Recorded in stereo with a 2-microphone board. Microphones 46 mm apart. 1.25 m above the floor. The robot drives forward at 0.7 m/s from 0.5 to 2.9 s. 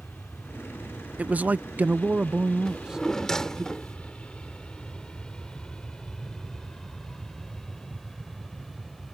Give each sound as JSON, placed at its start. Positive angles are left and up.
{"t": 0.0, "sound": "an aircraft", "side_deg": 50}
{"t": 1.2, "sound": "a man speaking", "side_deg": -30}
{"t": 2.6, "sound": "a drawer", "side_deg": 10}